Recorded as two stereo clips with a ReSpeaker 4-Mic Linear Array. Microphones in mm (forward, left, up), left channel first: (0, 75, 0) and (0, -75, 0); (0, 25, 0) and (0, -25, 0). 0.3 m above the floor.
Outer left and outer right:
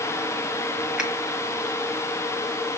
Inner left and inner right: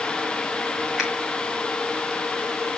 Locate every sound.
1.0 s a finger snap: 5° right (ahead or behind), 1.9 m